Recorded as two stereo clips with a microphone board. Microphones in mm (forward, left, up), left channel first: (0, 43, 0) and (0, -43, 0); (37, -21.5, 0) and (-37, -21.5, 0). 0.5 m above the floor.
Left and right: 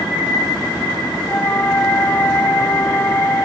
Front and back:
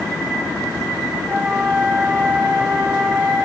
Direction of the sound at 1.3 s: 120° left.